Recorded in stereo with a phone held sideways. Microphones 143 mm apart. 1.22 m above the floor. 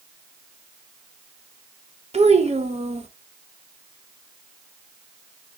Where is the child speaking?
50° right (ahead or behind), 0.8 m.